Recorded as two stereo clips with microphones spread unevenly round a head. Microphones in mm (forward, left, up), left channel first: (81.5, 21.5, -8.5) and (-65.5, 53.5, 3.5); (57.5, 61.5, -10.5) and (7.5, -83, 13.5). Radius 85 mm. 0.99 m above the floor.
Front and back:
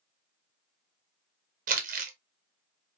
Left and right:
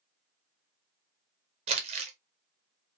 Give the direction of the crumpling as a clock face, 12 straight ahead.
5 o'clock.